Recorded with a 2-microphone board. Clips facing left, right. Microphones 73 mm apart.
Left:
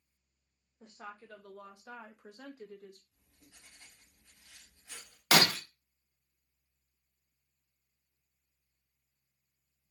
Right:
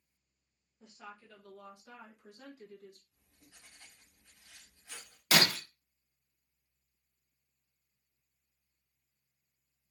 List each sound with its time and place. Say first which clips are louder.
0.8 s a woman speaking: left 3 dB; 40° left (ahead or behind), 1.1 m; by 3.0 s 60° left (ahead or behind), 1.1 m
3.1 s writing: even; 20° right (ahead or behind), 2.5 m
5.3 s breaking glass: left 2 dB; 75° left (ahead or behind), 0.8 m